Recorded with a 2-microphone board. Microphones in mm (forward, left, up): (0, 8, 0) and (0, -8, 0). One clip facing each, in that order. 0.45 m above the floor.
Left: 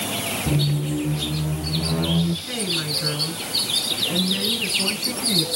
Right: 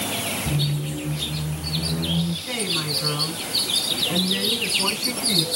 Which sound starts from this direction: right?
A woman speaking, at 2.5 s.